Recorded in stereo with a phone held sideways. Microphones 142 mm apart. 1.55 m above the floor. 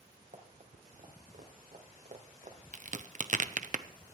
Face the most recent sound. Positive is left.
turn(degrees=-55)  # may be behind; listen again after turning